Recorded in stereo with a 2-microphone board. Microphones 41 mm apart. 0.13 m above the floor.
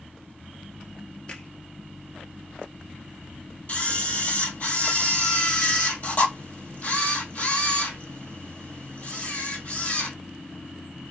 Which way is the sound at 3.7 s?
40° left (ahead or behind).